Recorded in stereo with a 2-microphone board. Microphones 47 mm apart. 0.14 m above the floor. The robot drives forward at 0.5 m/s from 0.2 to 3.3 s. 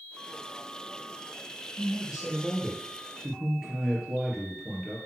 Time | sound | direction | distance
1.8 | a man speaking | 10° right (ahead or behind) | 4 m